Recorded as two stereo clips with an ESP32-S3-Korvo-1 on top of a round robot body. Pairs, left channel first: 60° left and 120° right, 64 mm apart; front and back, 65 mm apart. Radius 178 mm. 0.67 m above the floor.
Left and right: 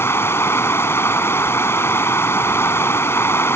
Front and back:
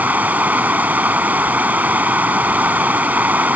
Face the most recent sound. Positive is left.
turn(degrees=115)